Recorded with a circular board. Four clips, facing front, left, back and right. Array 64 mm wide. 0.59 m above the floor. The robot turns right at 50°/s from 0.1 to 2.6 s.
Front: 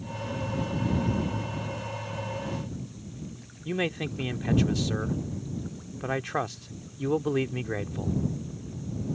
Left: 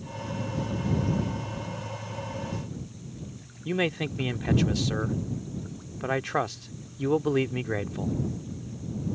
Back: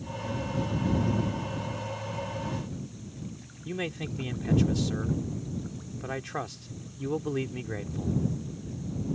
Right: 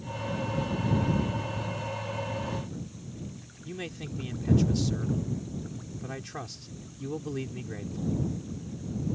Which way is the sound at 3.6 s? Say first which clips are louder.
Left 11 dB, front 4 dB; 65° left.